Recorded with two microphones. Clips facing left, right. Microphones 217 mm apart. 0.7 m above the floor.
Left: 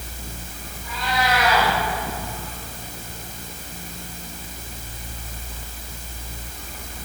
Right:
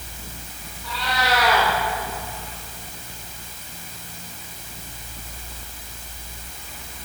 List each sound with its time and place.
0.8 s a cat meowing: 85° right, 9 m